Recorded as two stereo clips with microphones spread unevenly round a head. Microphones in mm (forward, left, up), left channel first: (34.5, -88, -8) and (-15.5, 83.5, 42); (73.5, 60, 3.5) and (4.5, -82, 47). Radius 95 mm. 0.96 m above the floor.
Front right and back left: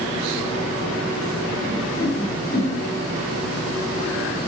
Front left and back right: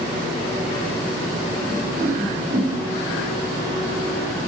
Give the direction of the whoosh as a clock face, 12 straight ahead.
1 o'clock.